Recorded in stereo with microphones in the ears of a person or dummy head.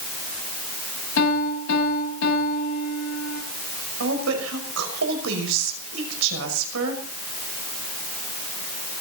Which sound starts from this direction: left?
A piano, at 1.2 s.